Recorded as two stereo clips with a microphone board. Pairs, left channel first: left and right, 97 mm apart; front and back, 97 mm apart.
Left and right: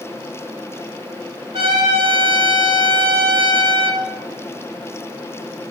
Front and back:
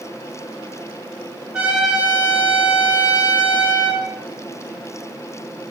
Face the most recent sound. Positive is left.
turn(degrees=-100)